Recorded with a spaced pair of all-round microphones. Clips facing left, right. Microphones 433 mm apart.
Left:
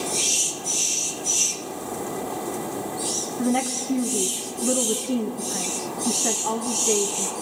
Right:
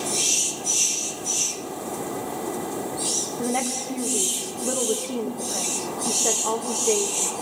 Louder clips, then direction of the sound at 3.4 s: Left 4 dB; 30° left (ahead or behind).